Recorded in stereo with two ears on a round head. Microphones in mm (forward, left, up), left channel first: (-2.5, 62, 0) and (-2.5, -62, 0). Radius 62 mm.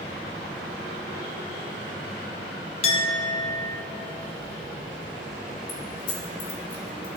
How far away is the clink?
About 1.0 m.